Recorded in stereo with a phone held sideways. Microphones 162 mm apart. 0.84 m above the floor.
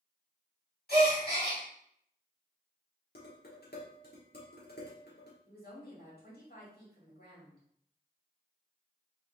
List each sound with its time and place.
0.9 s a gasp: 75° left (ahead or behind), 2 m
3.1 s dishes clattering: 85° left, 1.2 m
5.5 s a woman speaking: 75° left (ahead or behind), 2 m